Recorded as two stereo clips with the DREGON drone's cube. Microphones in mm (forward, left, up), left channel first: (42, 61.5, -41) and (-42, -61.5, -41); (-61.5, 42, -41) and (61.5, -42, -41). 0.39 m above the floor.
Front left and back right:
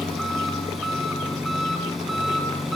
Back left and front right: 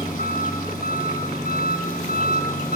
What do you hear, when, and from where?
0.0 s an engine running: 145° left, 3.5 m